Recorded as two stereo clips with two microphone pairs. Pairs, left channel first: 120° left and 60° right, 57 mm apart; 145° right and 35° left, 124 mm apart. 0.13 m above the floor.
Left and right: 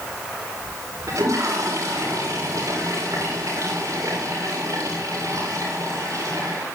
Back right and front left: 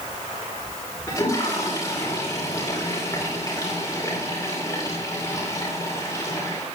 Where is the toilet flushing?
85° right, 8.5 m.